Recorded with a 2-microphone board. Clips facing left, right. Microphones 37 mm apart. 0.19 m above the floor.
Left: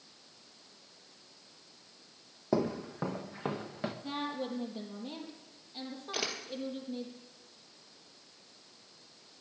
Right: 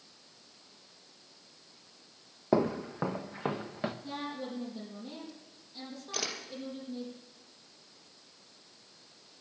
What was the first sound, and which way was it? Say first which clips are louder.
Footsteps: right 3 dB; 25° right (ahead or behind).